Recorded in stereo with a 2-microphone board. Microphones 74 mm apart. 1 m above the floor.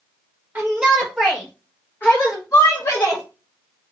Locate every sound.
0.6 s a shout: 25° right (ahead or behind), 1.0 m; by 3.2 s 55° left (ahead or behind), 1.7 m